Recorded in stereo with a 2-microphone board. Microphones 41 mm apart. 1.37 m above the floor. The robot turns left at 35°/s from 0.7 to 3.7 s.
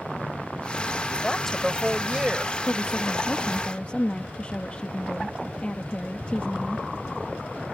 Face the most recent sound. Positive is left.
turn(degrees=30)